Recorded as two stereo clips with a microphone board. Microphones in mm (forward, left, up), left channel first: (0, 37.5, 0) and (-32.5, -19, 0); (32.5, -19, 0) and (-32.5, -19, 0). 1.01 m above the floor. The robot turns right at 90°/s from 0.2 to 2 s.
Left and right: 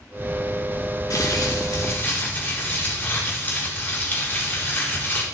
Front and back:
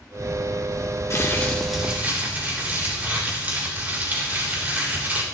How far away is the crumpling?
About 3.5 m.